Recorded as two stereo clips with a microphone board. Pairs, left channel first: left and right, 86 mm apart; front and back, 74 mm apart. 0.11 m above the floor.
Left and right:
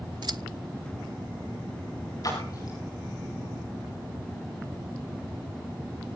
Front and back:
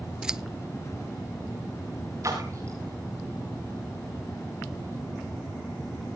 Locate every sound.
0.2 s scissors: 100° right, 0.5 m
2.2 s a splash: 135° left, 6 m